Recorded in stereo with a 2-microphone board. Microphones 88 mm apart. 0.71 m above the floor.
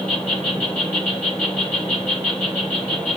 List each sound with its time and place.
0.0 s an insect: 15° left (ahead or behind), 4 m